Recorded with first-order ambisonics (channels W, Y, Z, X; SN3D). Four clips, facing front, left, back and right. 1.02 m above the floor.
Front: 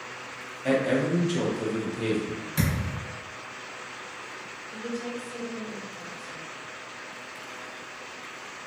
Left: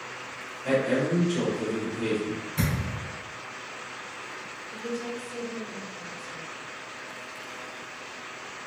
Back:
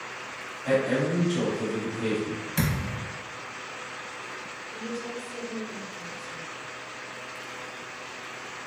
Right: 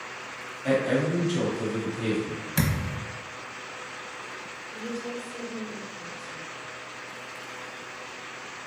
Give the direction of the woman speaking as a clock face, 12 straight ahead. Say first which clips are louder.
Left 1 dB, front 2 dB; 11 o'clock.